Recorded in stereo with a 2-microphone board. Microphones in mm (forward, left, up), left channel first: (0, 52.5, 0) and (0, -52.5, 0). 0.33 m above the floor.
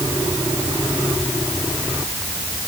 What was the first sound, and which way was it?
Only background noise.